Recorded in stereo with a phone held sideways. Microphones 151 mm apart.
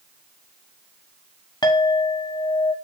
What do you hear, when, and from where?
1.6 s a clink: 30° left (ahead or behind), 1.2 m